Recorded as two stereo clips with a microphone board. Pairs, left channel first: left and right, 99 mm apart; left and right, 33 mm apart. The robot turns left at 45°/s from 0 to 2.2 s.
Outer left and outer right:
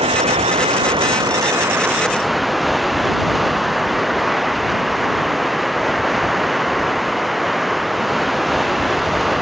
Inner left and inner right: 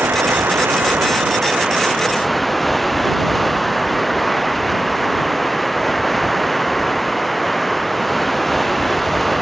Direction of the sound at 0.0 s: 80° right.